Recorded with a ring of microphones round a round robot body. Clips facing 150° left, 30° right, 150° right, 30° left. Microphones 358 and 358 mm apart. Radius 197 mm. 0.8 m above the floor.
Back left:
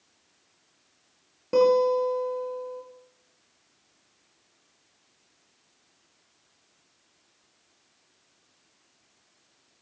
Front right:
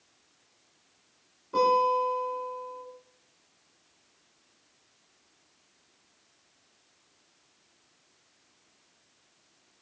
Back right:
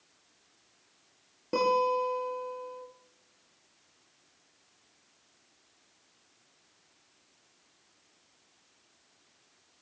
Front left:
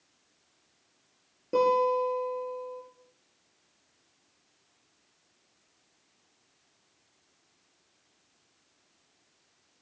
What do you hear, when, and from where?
1.5 s a guitar: 140° left, 8.5 m